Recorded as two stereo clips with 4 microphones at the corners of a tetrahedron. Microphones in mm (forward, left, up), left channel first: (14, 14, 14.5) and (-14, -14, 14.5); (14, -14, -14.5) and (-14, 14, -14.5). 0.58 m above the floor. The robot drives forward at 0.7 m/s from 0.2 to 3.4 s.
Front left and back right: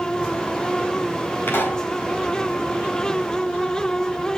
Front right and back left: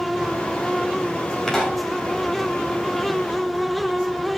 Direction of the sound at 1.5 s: 35° left.